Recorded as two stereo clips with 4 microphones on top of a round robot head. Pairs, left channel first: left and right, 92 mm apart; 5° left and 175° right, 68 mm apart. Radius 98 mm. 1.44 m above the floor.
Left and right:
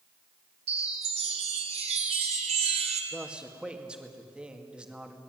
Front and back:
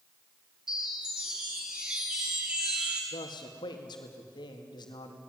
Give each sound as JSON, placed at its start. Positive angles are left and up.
{"t": 0.7, "sound": "a chime", "azimuth_deg": -95, "distance_m": 2.0}
{"t": 3.1, "sound": "a man speaking", "azimuth_deg": -10, "distance_m": 2.5}